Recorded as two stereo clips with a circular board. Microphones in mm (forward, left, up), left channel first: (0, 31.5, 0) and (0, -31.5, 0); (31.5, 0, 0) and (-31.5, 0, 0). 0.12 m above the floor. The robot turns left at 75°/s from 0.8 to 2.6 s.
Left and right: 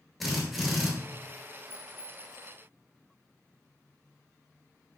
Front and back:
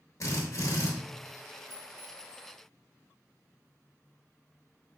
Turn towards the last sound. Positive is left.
turn(degrees=20)